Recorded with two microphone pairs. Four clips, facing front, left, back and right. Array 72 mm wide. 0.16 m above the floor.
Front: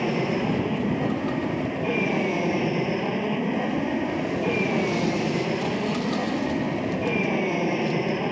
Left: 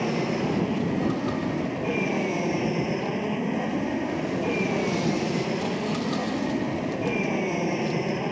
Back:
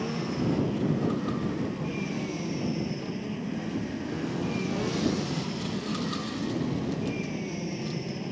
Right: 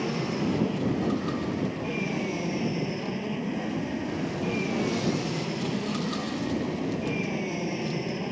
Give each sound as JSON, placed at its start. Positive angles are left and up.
{"t": 0.0, "sound": "an aircraft", "azimuth_deg": 30}